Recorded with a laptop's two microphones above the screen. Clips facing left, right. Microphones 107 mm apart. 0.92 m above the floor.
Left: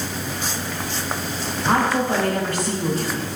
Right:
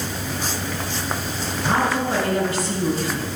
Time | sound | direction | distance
1.7 | a woman speaking | 60° left (ahead or behind) | 6 m